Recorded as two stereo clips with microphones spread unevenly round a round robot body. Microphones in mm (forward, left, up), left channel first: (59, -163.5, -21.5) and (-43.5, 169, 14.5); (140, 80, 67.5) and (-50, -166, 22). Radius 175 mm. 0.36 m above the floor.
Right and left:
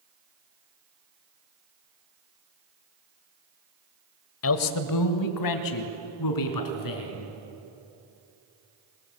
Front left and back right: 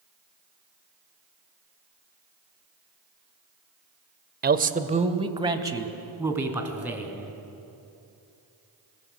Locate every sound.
4.4 s a man speaking: 90° right, 1.3 m; by 7.3 s 40° right, 4.5 m